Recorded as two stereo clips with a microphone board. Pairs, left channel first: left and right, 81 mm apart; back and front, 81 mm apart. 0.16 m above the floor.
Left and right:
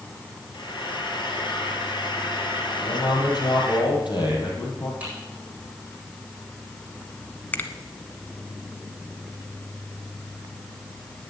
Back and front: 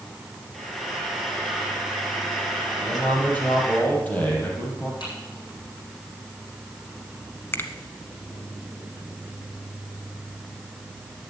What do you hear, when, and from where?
0.5 s frying: 95° left, 2.5 m
2.8 s a man speaking: 115° left, 5.5 m
5.0 s typing on a keyboard: 160° right, 9.5 m
7.5 s a finger snap: 145° left, 1.1 m